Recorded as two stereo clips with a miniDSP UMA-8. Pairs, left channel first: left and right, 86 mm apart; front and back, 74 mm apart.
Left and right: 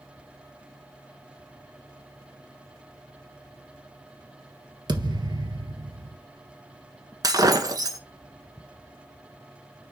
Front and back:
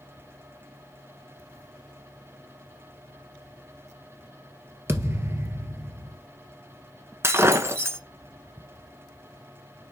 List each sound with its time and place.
4.9 s a thud: 125° right, 1.4 m
7.2 s breaking glass: 130° right, 1.2 m